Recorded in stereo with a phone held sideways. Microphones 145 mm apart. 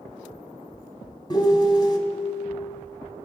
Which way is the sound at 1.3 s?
30° left (ahead or behind).